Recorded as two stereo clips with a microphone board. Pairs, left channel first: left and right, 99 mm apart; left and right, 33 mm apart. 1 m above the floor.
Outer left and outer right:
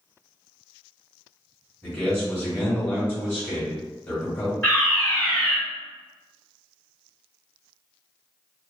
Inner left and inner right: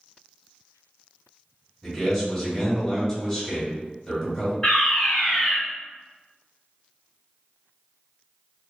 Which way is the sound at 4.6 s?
20° left (ahead or behind).